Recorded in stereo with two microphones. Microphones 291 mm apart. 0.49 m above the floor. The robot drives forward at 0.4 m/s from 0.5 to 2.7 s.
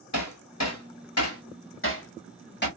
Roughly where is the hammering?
Left.